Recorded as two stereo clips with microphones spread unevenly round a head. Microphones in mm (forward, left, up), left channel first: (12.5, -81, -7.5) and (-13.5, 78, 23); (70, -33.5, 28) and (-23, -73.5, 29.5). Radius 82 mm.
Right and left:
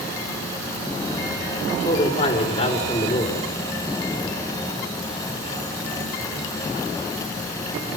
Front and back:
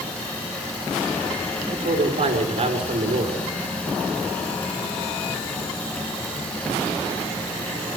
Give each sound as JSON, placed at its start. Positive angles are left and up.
{"t": 1.7, "sound": "a man speaking", "azimuth_deg": -135, "distance_m": 4.5}